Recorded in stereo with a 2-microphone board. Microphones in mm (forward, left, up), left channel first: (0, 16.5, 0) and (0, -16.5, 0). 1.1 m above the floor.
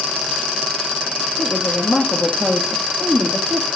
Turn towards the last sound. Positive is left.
turn(degrees=-50)  # may be behind; listen again after turning